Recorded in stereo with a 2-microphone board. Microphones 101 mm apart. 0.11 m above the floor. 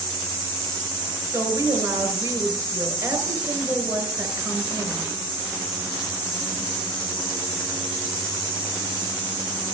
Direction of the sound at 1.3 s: 25° right (ahead or behind).